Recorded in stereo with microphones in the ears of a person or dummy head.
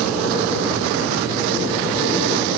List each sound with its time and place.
Only background noise.